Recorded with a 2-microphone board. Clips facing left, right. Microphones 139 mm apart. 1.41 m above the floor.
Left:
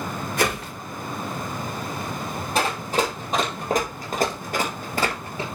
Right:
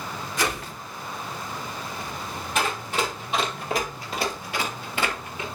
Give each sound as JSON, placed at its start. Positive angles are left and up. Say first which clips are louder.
{"t": 0.4, "sound": "a whoosh", "louder": "left 3 dB", "side_deg": 55, "distance_m": 2.5}
{"t": 2.5, "sound": "running footsteps", "louder": "left 3 dB", "side_deg": 35, "distance_m": 3.0}